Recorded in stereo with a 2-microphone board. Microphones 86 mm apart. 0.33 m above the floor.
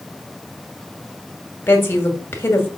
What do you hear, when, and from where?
1.7 s a woman speaking: 30° left (ahead or behind), 2.0 m